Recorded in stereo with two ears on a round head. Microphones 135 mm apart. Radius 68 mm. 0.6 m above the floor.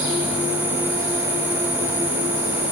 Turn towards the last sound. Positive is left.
turn(degrees=-55)  # may be behind; listen again after turning